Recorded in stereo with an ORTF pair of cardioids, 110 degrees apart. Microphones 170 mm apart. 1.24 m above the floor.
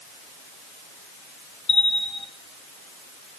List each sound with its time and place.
1.7 s a bell: 30° left, 2 m